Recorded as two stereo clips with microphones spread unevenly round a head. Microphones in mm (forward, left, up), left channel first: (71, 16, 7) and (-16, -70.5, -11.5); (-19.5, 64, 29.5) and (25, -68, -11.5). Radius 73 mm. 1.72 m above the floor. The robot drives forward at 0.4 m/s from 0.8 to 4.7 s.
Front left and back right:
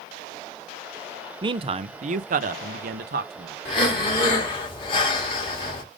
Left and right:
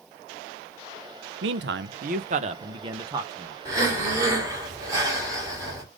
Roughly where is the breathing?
Ahead.